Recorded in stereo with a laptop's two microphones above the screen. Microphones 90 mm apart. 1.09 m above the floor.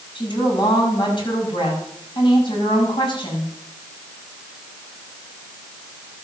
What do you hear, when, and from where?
0.1 s a woman speaking: 55° left (ahead or behind), 6.5 m